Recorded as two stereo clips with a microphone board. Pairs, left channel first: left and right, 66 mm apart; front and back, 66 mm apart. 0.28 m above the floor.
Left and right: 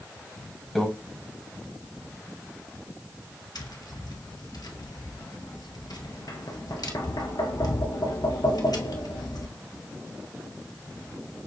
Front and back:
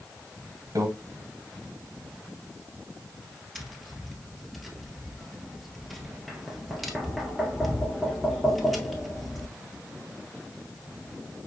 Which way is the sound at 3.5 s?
90° left.